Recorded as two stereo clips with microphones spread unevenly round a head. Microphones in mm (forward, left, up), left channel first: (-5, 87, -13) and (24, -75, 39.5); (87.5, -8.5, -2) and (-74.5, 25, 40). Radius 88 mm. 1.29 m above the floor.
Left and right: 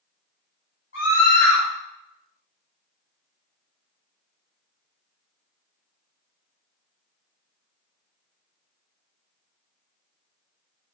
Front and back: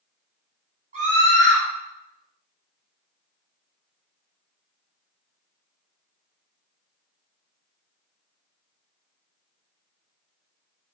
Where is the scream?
120° left, 3.5 m.